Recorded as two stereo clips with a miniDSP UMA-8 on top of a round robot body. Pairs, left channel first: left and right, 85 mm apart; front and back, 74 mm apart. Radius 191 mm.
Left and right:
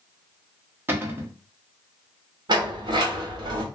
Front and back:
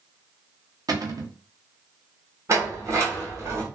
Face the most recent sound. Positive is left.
turn(degrees=-130)